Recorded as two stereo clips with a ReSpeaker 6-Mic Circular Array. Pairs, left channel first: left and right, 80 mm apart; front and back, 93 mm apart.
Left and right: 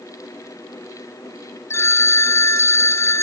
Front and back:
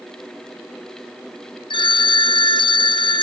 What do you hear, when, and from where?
1.7 s a phone ringing: 30° left, 1.1 m